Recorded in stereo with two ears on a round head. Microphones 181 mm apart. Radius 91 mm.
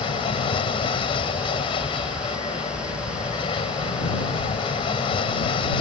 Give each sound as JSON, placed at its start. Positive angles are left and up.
{"t": 0.0, "sound": "an aircraft", "side_deg": 25}